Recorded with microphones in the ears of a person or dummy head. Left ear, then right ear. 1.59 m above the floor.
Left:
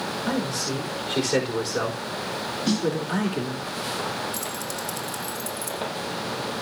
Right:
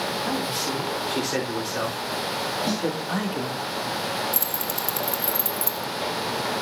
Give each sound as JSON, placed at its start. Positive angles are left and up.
{"t": 0.3, "sound": "a man speaking", "side_deg": -15, "distance_m": 4.5}
{"t": 2.7, "sound": "a snare drum", "side_deg": 0, "distance_m": 4.0}
{"t": 4.3, "sound": "keys jangling", "side_deg": -35, "distance_m": 0.7}